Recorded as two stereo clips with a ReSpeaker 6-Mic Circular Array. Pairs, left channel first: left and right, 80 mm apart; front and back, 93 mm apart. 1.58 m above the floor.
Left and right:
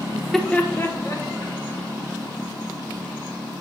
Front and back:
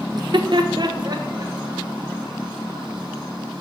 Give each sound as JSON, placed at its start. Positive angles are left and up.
{"t": 0.1, "sound": "laughter", "azimuth_deg": -160, "distance_m": 0.5}